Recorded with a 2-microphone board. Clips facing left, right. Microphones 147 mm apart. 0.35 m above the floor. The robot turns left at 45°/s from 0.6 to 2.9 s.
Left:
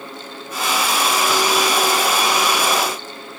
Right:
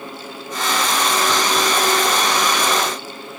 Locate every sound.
Only background noise.